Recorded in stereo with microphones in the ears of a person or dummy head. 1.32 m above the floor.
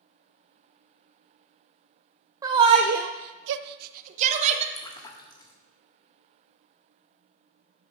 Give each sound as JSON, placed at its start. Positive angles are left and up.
{"t": 2.4, "sound": "a shout", "side_deg": -20, "distance_m": 0.8}
{"t": 4.8, "sound": "a splash", "side_deg": 25, "distance_m": 1.2}